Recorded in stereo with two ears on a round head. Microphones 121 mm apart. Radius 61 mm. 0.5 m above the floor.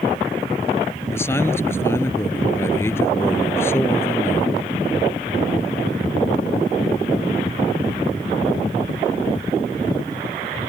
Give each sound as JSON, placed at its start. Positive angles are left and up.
{"t": 1.1, "sound": "a man speaking", "side_deg": 20}